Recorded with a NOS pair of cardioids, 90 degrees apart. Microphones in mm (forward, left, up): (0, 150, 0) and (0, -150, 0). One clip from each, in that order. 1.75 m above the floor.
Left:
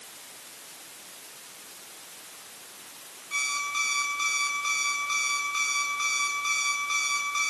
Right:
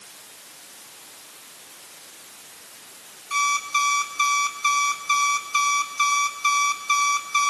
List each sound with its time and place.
3.3 s an alarm clock: 65° right, 9 m